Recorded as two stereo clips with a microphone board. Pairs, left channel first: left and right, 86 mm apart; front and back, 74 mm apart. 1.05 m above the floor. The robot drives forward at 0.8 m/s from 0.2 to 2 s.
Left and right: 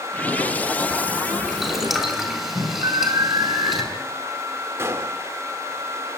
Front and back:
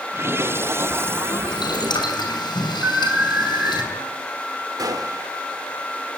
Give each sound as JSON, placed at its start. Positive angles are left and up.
{"t": 1.5, "sound": "boiling", "azimuth_deg": 0, "distance_m": 6.0}
{"t": 2.8, "sound": "an alarm", "azimuth_deg": -115, "distance_m": 3.0}
{"t": 4.8, "sound": "a gunshot", "azimuth_deg": -150, "distance_m": 1.7}